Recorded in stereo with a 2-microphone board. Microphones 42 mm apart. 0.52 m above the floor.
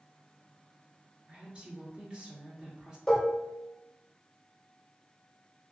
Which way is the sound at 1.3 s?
25° right (ahead or behind).